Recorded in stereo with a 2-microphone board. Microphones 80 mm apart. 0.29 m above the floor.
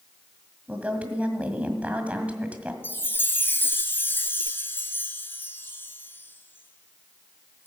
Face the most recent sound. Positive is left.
turn(degrees=25)  # may be behind; listen again after turning